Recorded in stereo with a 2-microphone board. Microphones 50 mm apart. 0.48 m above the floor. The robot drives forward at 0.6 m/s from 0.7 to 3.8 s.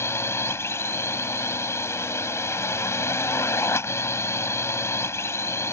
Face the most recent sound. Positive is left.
turn(degrees=65)  # may be behind; listen again after turning